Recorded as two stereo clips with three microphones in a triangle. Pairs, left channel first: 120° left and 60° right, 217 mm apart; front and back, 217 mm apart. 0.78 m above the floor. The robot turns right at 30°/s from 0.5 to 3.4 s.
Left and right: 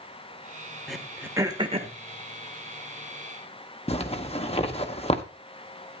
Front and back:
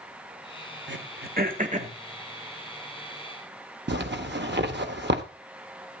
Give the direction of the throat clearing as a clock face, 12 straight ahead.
5 o'clock.